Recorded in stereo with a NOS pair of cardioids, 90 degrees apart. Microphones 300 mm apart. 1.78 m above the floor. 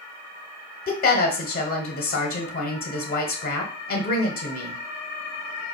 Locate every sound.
0.9 s a woman speaking: 30° left, 1.1 m